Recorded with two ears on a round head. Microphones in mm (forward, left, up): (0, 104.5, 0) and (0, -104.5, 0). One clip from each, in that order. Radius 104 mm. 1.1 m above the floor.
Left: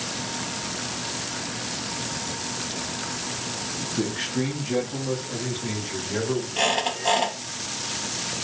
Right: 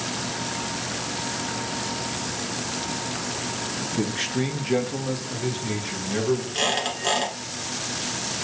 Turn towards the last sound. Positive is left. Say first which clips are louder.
# left 1 dB
turn(degrees=-70)  # may be behind; listen again after turning